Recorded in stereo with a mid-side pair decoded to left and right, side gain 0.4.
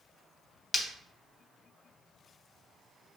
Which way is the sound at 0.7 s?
40° left.